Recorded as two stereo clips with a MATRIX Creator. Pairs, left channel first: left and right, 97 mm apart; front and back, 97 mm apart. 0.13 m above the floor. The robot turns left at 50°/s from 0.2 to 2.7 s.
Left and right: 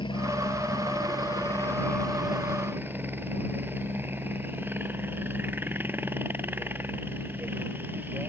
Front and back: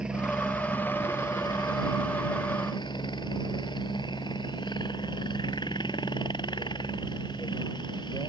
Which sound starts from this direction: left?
A helicopter, at 0.0 s.